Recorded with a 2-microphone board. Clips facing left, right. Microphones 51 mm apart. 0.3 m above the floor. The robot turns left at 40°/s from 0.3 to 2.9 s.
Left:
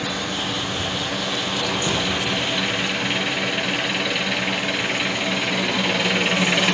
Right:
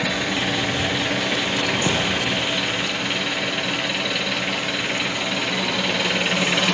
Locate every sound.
0.0 s an engine running: 85° right, 1.4 m; by 6.7 s 170° left, 1.4 m
1.9 s a thud: 80° right, 2.5 m